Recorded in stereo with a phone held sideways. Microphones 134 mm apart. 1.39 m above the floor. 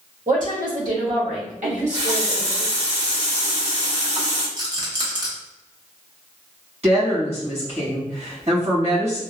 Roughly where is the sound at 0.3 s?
Right.